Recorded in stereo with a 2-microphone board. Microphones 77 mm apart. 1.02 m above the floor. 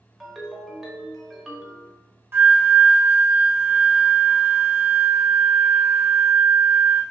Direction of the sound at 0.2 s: Centre (ahead or behind).